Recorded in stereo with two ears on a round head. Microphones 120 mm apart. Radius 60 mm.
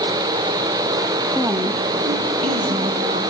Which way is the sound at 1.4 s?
5° right (ahead or behind).